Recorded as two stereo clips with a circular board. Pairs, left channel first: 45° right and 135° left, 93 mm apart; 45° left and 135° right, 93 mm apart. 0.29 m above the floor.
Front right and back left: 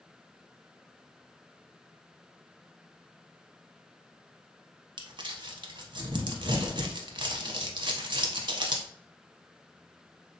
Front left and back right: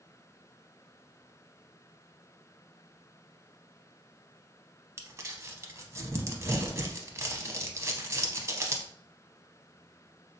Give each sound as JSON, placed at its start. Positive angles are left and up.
{"t": 5.0, "sound": "crumpling", "azimuth_deg": 165, "distance_m": 0.5}